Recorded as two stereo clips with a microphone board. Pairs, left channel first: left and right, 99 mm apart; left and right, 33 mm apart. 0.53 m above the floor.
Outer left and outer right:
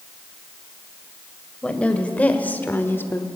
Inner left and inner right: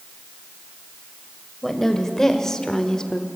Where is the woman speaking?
10° left (ahead or behind), 2.5 m; by 3.3 s 25° left (ahead or behind), 1.2 m.